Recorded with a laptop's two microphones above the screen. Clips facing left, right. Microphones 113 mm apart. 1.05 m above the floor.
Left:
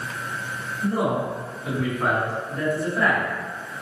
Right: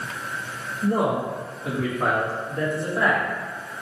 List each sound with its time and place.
0.8 s a man speaking: 60° right (ahead or behind), 2.0 m; by 3.2 s 25° right (ahead or behind), 2.5 m